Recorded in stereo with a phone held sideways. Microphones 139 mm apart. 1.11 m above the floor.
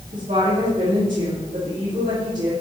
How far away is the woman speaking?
About 3 m.